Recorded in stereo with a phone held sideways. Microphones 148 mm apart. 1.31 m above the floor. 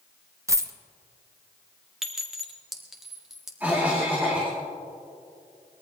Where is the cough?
10° right (ahead or behind), 2.5 m.